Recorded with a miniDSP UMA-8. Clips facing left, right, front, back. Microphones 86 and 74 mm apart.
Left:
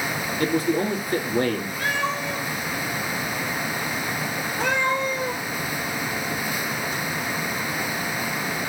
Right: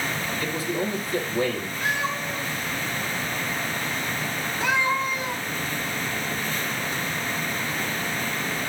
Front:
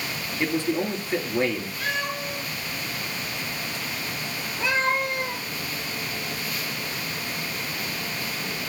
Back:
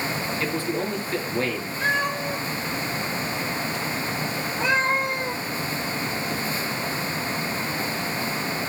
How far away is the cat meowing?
About 3 m.